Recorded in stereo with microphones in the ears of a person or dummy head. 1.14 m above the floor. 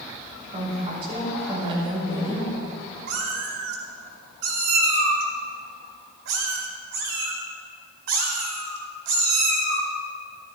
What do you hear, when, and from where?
0.5 s a woman speaking: 30° right (ahead or behind), 5 m
3.1 s a cat meowing: 65° right (ahead or behind), 2 m